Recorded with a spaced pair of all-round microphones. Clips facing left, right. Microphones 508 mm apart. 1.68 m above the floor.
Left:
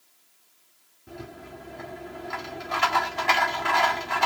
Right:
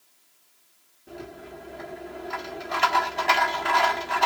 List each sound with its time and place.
1.1 s a rattle: 25° left (ahead or behind), 1.4 m